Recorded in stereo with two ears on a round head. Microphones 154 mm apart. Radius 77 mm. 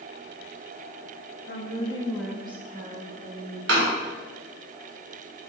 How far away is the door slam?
About 1.6 m.